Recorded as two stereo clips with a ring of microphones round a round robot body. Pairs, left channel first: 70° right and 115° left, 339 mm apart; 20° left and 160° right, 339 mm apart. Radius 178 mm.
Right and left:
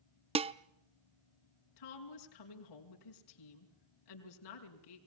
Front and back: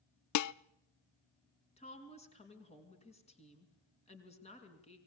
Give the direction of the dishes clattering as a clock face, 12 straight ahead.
11 o'clock.